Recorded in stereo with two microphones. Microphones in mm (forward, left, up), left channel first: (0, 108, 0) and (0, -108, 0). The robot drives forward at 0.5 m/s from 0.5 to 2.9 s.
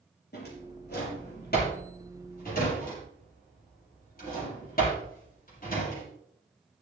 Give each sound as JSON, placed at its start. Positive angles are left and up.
{"t": 0.3, "sound": "a drawer", "side_deg": 50, "distance_m": 6.0}